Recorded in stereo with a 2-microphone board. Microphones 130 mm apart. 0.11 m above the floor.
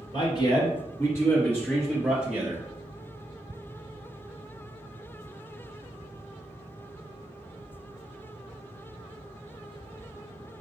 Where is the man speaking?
40° left (ahead or behind), 2.0 m; by 2.6 s 15° right (ahead or behind), 1.8 m.